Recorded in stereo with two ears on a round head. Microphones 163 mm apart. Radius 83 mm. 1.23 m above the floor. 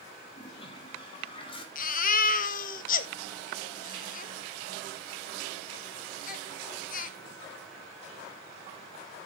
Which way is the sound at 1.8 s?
50° left (ahead or behind).